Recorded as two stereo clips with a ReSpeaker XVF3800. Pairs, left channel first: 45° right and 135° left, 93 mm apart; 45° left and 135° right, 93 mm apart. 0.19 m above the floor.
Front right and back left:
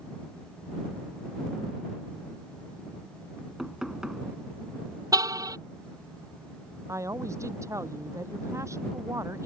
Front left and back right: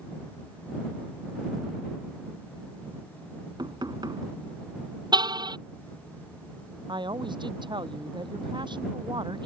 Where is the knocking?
145° right.